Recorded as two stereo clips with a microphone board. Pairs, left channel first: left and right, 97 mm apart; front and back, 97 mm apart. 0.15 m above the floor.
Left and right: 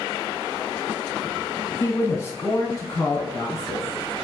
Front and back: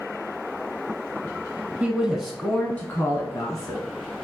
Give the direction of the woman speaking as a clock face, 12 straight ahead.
8 o'clock.